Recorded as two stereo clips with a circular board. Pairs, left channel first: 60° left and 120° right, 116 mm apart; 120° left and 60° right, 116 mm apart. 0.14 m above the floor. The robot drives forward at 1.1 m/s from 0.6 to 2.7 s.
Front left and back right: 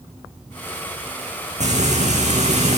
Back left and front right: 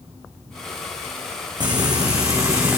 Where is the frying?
110° right, 3.5 m; by 2.8 s 125° right, 4 m.